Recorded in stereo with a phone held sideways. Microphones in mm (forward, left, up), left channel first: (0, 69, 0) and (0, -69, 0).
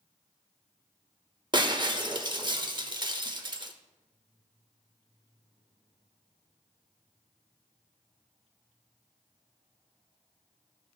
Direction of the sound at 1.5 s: 35° right (ahead or behind).